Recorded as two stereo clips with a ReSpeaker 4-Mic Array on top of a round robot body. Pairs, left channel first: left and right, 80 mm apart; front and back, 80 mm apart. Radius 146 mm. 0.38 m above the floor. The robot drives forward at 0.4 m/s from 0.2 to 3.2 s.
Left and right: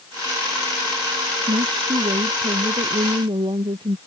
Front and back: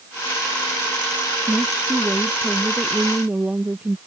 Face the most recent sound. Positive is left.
turn(degrees=-105)